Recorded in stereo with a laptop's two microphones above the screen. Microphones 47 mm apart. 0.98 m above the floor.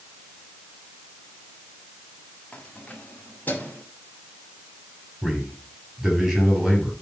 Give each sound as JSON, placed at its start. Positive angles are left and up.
{"t": 2.5, "sound": "keys jangling", "side_deg": 30, "distance_m": 1.5}
{"t": 5.2, "sound": "a man speaking", "side_deg": -10, "distance_m": 6.5}